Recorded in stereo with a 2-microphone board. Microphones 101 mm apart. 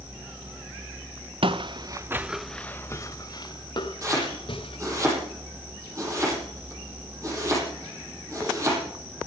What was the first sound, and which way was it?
Footsteps, 60° right (ahead or behind).